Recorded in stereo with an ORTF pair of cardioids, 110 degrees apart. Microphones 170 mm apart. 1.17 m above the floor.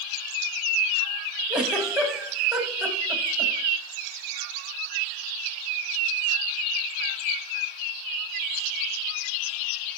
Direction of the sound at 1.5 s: 5° right.